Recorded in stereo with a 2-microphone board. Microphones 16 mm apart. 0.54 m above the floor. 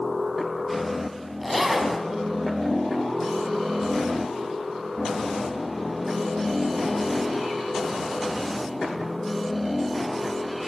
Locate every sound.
1.4 s a zipper: centre (ahead or behind), 5 m